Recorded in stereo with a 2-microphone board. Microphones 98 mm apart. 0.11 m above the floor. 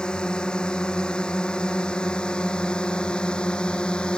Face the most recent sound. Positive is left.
turn(degrees=10)  # may be behind; listen again after turning